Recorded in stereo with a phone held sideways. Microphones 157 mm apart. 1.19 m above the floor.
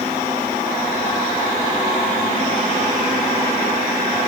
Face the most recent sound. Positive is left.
No sound to turn to.